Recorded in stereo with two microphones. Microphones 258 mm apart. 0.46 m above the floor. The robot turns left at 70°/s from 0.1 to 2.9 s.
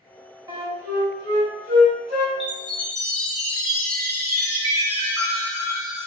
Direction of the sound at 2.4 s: Straight ahead.